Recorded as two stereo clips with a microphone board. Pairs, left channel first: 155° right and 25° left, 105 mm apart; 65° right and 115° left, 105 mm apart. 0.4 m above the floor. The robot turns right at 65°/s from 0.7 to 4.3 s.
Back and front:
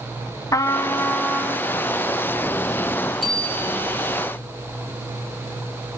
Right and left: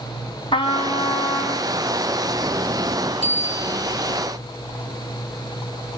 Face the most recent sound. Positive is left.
turn(degrees=-175)